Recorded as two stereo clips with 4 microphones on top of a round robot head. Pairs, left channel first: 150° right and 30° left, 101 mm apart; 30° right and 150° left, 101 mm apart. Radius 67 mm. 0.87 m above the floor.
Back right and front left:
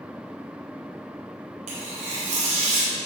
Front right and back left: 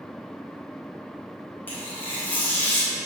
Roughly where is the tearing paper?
Ahead left.